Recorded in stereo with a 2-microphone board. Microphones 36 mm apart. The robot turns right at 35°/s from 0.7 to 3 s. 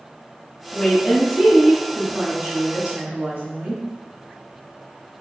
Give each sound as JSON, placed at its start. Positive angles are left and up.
{"t": 0.7, "sound": "a woman speaking", "azimuth_deg": 160, "distance_m": 1.5}